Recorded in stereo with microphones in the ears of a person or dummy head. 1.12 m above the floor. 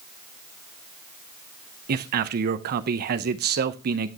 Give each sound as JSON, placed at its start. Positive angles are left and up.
{"t": 1.9, "sound": "a man speaking", "side_deg": -45, "distance_m": 0.5}